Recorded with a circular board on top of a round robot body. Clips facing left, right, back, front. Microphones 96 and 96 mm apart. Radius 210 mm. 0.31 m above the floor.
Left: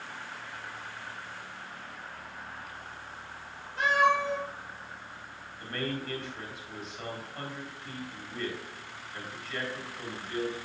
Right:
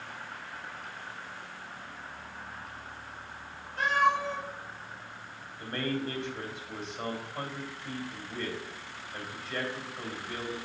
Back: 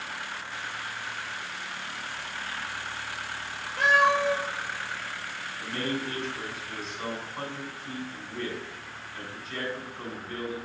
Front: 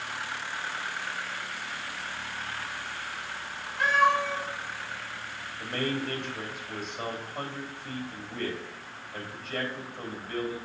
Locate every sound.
3.8 s a cat meowing: 165° left, 3.5 m
5.6 s a man speaking: 25° right, 3 m